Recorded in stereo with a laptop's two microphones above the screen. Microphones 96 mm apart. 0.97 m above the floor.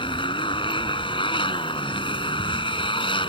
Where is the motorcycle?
65° left (ahead or behind).